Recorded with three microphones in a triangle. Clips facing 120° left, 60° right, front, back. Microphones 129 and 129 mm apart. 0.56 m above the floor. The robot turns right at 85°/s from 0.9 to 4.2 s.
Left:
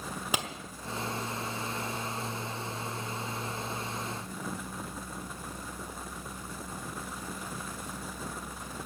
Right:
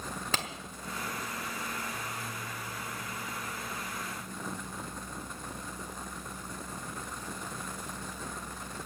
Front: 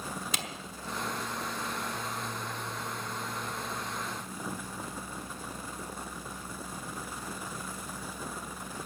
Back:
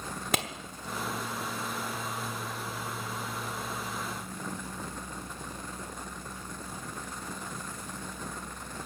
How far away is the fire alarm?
I don't hear a fire alarm.